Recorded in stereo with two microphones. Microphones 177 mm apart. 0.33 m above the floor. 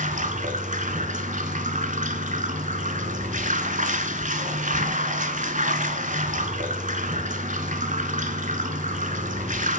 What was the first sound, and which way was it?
Running water, 45° right (ahead or behind).